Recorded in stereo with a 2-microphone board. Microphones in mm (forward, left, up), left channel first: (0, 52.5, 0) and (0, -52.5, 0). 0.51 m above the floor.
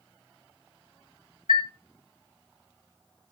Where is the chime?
55° right (ahead or behind), 1.2 m.